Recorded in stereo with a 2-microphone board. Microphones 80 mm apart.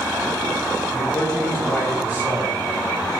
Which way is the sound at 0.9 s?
35° left (ahead or behind).